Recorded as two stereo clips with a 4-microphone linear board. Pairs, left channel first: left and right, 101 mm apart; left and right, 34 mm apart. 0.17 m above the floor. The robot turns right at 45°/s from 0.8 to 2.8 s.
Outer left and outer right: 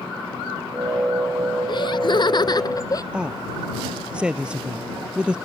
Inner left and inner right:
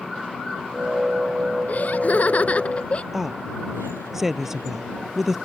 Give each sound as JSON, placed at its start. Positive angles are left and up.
{"t": 1.7, "sound": "laughter", "azimuth_deg": 75}
{"t": 3.1, "sound": "a woman speaking", "side_deg": -10}